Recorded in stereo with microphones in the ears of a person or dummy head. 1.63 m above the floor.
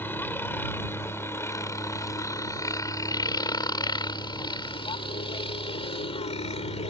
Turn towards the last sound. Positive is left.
turn(degrees=30)  # may be behind; listen again after turning